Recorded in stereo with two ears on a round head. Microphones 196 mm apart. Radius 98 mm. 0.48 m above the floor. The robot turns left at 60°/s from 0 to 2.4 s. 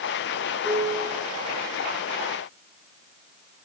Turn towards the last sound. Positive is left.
turn(degrees=-40)